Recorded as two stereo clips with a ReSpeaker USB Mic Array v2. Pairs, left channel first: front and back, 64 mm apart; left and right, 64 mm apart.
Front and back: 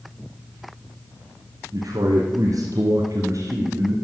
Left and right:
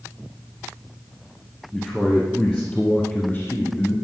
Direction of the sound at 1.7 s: 175° right.